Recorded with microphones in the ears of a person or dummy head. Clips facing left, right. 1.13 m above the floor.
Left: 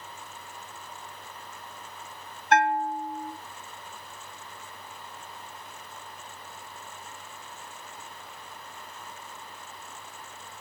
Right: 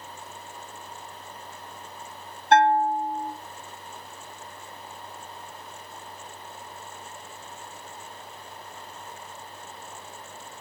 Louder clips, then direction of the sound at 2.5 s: Right 5 dB; 25° right (ahead or behind).